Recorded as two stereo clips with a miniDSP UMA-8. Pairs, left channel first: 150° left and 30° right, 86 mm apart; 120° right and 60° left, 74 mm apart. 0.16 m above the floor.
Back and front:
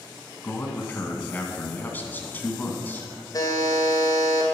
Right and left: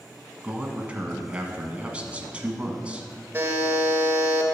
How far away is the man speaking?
About 1.4 m.